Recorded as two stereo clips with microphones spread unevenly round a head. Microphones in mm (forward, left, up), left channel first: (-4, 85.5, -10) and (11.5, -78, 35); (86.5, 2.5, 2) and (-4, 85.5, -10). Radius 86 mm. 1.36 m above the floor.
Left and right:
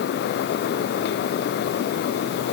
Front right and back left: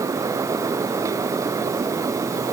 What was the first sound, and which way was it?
Only background noise.